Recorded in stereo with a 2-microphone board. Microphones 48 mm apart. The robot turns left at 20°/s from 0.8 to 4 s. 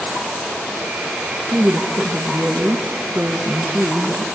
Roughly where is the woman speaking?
Centre.